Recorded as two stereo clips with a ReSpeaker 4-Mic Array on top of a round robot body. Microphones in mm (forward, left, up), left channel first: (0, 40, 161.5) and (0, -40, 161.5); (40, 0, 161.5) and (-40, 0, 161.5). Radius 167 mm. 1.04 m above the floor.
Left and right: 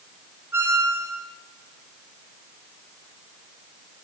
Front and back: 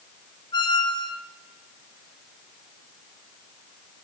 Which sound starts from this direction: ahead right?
A squeak, at 0.5 s.